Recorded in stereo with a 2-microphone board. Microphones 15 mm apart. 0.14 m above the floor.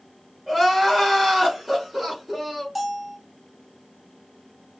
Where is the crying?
10° right (ahead or behind), 1.8 m.